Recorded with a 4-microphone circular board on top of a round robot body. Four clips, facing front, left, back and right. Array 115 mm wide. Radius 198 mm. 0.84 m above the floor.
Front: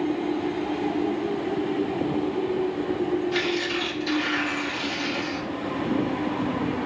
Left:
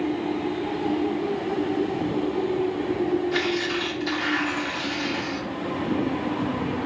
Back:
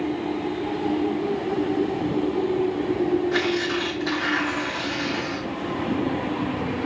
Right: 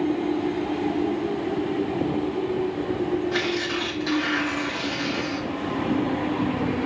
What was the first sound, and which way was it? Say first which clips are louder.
Tearing paper: left 1 dB, back 3 dB; 145° right.